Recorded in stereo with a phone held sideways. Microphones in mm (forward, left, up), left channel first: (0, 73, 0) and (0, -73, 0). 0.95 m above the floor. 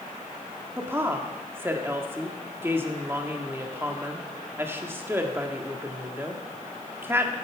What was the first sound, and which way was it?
A woman speaking, 15° right (ahead or behind).